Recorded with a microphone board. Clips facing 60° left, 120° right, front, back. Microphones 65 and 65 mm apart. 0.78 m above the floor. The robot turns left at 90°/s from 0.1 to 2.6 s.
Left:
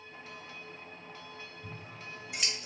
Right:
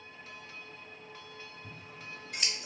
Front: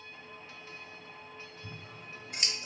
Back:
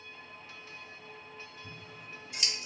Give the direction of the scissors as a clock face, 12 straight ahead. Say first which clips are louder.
Left 2 dB, front 1 dB; 11 o'clock.